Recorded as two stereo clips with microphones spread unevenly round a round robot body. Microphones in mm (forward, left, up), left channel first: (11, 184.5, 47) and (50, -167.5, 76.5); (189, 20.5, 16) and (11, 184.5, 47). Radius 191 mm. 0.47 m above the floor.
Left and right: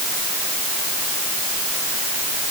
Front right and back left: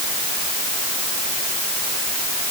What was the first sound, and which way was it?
Only background noise.